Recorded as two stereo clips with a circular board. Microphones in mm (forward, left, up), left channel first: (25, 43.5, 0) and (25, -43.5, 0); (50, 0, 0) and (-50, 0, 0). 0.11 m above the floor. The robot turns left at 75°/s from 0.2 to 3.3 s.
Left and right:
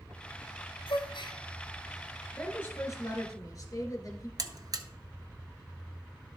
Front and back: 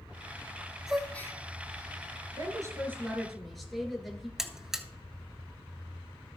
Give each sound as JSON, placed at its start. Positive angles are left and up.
{"t": 0.9, "sound": "a gasp", "azimuth_deg": 100, "distance_m": 1.1}
{"t": 2.4, "sound": "a woman speaking", "azimuth_deg": 160, "distance_m": 2.0}
{"t": 4.4, "sound": "a buzzer", "azimuth_deg": -95, "distance_m": 0.8}